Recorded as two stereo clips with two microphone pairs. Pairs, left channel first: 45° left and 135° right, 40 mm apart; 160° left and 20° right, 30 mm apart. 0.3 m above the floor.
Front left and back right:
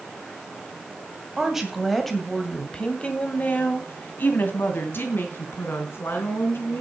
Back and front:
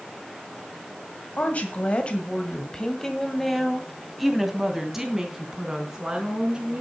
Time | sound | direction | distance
1.4 | a woman speaking | 150° left | 1.9 m